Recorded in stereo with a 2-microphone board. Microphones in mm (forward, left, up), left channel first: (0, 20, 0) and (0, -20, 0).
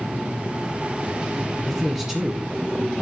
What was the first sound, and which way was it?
A man speaking, centre (ahead or behind).